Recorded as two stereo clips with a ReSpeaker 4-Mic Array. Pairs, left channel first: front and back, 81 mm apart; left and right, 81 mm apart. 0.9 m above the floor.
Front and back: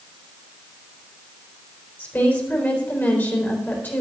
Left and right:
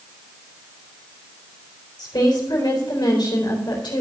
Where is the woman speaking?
65° left, 3.5 m.